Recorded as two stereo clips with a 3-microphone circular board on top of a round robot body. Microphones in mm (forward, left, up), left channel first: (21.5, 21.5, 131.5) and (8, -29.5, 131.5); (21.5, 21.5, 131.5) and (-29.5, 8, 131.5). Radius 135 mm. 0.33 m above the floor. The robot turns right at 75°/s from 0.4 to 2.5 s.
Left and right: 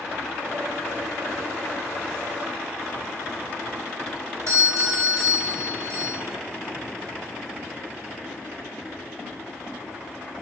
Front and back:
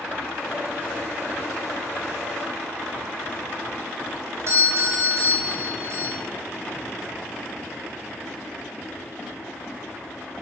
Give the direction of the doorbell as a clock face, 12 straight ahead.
4 o'clock.